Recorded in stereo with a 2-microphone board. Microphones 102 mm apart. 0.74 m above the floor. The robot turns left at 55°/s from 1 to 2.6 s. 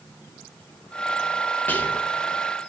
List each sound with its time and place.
1.7 s whispering: 15° left (ahead or behind), 0.8 m; by 2.1 s 10° left (ahead or behind), 0.8 m